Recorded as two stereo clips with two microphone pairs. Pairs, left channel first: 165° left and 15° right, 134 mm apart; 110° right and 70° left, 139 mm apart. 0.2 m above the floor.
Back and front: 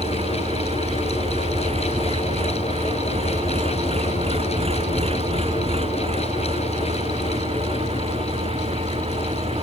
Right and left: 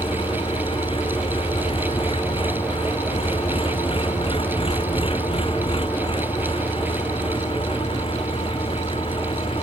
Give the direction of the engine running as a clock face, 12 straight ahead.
2 o'clock.